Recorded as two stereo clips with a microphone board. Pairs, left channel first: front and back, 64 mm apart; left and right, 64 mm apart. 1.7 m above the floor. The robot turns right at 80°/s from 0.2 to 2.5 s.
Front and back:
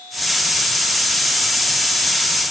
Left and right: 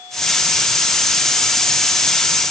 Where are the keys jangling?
No keys jangling in this recording.